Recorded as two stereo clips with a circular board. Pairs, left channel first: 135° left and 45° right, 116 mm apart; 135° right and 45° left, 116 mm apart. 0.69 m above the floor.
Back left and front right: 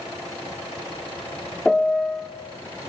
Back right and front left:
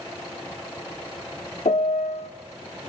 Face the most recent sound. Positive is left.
turn(degrees=-140)